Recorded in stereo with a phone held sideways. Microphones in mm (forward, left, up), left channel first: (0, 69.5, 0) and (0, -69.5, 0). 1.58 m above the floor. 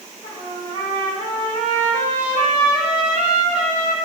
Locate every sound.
0.2 s a trumpet: 45° left (ahead or behind), 3 m